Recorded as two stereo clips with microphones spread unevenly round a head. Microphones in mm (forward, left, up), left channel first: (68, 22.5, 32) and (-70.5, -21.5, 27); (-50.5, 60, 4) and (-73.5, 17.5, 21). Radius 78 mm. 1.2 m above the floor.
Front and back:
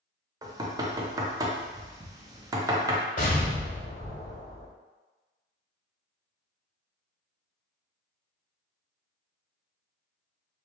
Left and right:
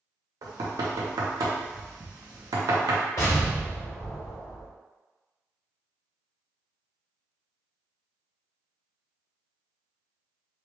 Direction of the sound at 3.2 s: 40° left.